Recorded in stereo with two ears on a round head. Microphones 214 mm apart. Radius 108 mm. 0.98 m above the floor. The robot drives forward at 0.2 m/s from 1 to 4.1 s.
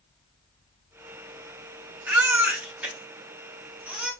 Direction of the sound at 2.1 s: 10° right (ahead or behind).